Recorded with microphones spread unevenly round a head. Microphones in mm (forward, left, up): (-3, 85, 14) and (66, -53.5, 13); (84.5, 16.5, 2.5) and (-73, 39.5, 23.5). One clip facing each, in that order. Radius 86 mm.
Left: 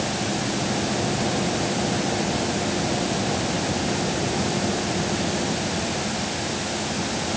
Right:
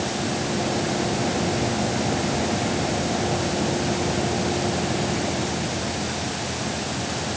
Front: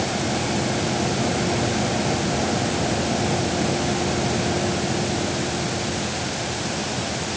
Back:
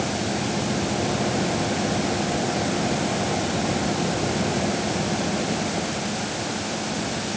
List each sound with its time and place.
Only background noise.